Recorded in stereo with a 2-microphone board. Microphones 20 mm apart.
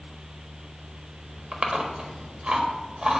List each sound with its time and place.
1.5 s chewing: 45° right (ahead or behind), 1.2 m